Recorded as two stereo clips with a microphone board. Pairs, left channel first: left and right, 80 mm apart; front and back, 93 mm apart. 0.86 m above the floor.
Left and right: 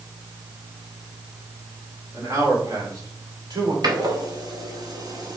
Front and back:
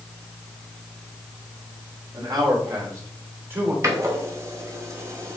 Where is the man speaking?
145° right, 3 m; by 3.7 s 110° right, 4 m.